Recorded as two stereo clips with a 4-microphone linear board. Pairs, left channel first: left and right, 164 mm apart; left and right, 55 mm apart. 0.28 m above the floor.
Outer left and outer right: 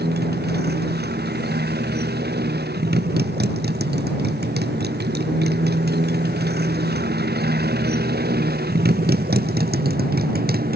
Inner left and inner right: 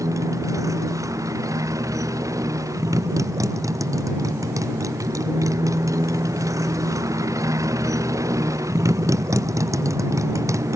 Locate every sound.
0.0 s a motorcycle: 85° right; by 10.8 s 70° right (ahead or behind)